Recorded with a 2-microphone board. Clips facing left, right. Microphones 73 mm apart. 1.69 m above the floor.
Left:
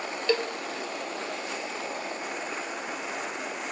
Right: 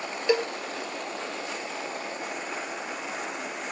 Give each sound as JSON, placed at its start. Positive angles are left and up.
{"t": 0.3, "sound": "a cowbell", "side_deg": -15, "distance_m": 0.5}